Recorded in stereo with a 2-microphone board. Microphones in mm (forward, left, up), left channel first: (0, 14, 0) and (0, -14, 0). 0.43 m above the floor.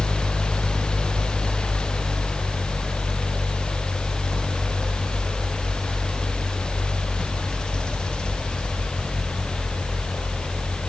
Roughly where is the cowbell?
No cowbell in this recording.